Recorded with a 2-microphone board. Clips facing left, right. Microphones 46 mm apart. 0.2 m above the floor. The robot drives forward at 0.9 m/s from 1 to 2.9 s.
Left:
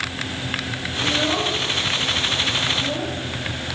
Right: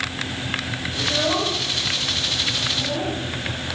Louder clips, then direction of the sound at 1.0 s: Left 1 dB; 10° right (ahead or behind).